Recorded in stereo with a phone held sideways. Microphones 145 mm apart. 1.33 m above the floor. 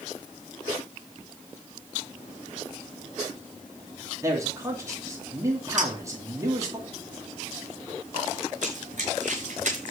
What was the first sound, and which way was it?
A man speaking, 20° right (ahead or behind).